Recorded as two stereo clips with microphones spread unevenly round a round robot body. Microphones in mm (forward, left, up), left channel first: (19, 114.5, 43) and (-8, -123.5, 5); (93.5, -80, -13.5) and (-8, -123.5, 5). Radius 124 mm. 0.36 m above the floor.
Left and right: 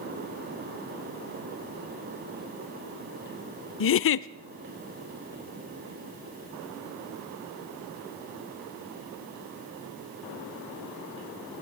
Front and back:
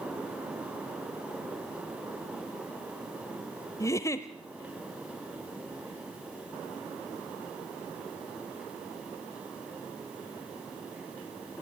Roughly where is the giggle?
Ahead left.